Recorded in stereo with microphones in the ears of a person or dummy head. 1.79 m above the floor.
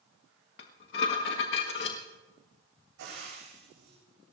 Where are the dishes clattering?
55° left (ahead or behind), 1.7 m.